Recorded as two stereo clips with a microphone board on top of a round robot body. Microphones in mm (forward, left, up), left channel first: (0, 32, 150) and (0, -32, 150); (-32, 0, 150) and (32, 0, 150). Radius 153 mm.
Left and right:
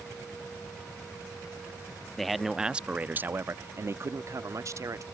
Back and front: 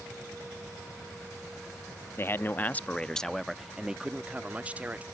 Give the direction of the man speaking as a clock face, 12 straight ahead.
6 o'clock.